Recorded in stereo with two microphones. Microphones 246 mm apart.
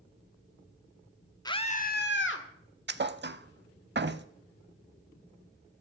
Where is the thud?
45° right (ahead or behind), 0.5 m.